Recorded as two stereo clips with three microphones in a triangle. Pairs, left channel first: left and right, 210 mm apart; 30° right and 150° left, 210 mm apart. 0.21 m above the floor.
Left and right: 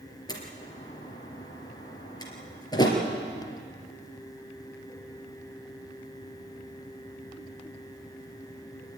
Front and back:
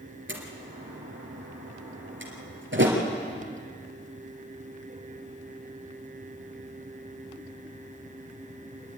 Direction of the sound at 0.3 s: 160° left.